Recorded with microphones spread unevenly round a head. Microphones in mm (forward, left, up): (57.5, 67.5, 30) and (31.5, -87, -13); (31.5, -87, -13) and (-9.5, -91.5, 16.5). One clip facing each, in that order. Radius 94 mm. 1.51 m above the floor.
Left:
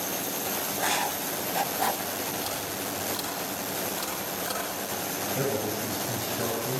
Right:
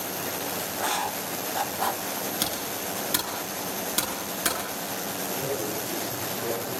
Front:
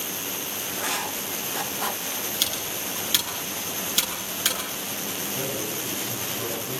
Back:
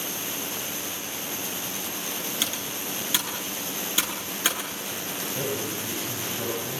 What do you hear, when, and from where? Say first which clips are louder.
0.7 s writing: even, front 6 dB; 15° left, 1.3 m
2.4 s typing on a keyboard: right 1 dB, front 1 dB; 120° right, 9.5 m
5.3 s a man speaking: left 2 dB, back 2 dB; 115° left, 8 m